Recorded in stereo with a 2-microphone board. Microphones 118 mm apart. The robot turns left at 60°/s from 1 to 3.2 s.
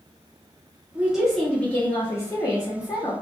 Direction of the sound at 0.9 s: 10° right (ahead or behind).